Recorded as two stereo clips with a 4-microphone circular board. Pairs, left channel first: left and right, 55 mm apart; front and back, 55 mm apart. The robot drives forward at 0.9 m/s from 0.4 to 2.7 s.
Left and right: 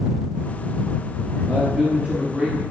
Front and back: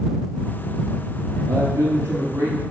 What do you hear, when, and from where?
1.5 s a man speaking: 155° right, 3 m; by 2.6 s 165° right, 4 m